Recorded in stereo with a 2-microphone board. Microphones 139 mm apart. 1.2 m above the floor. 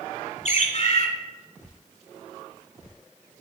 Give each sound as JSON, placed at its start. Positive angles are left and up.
{"t": 0.5, "sound": "a bird", "side_deg": 55, "distance_m": 1.4}